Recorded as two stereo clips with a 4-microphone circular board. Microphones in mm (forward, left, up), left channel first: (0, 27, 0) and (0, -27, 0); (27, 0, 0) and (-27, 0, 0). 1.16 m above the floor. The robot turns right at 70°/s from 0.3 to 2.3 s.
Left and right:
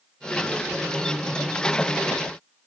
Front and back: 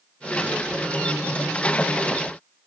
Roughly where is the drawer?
I don't hear a drawer.